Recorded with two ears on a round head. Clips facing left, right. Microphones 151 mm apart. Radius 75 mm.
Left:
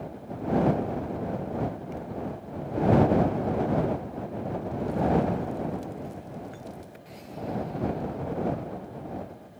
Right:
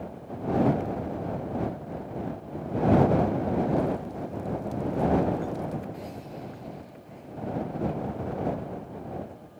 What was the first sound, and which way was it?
Only background noise.